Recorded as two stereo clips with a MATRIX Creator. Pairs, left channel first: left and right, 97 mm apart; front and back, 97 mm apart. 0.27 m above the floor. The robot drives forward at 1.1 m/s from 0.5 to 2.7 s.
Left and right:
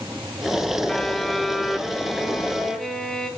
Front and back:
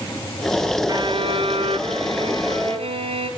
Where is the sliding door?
I don't hear a sliding door.